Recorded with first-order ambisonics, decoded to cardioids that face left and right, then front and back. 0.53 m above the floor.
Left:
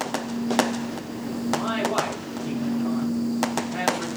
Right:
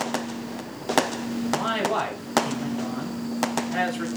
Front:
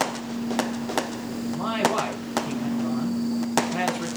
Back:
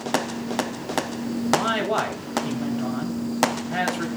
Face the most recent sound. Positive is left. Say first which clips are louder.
# even, back 3 dB
turn(degrees=-160)